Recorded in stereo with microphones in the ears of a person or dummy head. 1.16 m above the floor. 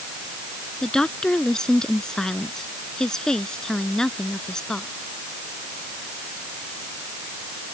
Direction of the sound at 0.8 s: Centre (ahead or behind).